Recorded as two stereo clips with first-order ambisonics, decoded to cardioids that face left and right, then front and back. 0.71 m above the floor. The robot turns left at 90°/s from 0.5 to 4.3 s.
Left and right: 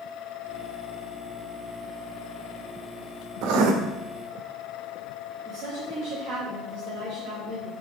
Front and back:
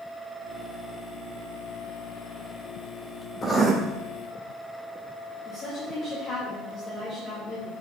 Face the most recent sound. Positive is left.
turn(degrees=-70)